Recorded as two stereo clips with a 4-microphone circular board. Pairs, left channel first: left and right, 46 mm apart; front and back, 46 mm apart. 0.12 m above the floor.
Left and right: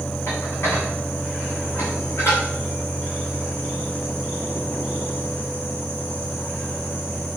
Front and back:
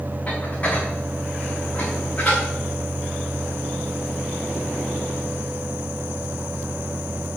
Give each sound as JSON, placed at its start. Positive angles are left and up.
{"t": 0.3, "sound": "dishes clattering", "azimuth_deg": 65, "distance_m": 6.0}